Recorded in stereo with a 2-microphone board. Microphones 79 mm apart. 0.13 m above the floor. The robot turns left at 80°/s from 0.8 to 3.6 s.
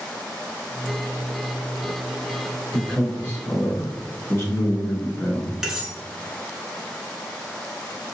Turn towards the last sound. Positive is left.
turn(degrees=-5)  # may be behind; listen again after turning